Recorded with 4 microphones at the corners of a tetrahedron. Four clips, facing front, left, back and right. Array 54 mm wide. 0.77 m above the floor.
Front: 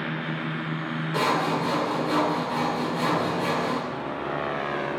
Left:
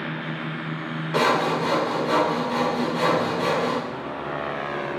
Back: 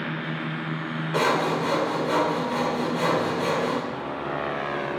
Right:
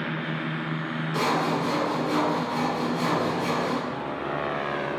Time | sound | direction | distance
1.1 | sawing | 115° left | 2.5 m